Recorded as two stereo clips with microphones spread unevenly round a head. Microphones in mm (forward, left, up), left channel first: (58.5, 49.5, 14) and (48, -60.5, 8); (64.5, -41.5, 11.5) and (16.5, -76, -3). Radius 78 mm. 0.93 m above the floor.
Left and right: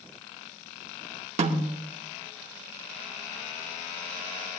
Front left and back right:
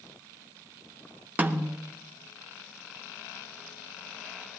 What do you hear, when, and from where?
1.4 s a snare drum: 85° right, 2.5 m